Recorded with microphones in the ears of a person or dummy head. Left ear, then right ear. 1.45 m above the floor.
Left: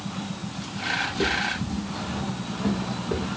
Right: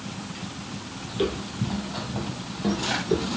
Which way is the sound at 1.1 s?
20° right (ahead or behind).